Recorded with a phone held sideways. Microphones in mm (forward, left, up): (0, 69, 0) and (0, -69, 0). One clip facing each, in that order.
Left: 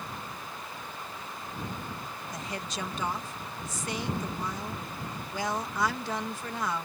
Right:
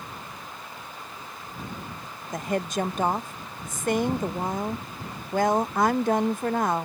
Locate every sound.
2.3 s a woman speaking: 50° right (ahead or behind)